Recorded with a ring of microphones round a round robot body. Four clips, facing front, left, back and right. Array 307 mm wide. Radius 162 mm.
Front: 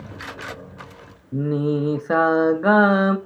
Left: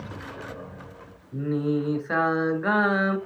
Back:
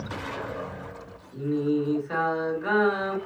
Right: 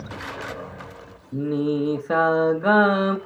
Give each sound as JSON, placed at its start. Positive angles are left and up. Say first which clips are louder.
{"t": 1.3, "sound": "singing", "louder": "right 3 dB, front 3 dB", "azimuth_deg": -20, "distance_m": 1.3}